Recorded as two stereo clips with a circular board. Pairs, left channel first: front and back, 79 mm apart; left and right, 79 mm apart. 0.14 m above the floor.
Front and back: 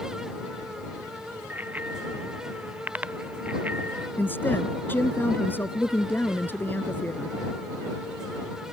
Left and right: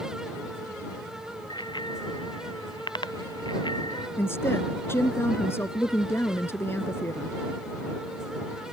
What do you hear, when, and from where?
1.5 s a bicycle bell: 110° left
4.2 s a woman speaking: 50° left